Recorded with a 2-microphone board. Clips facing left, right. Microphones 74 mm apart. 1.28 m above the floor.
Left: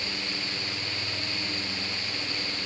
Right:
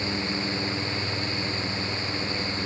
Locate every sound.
Only background noise.